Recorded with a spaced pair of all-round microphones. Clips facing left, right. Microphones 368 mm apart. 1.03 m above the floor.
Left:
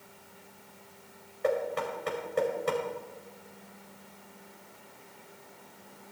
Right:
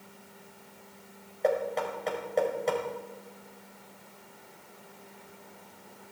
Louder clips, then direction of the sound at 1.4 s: Right 1 dB; 20° left (ahead or behind).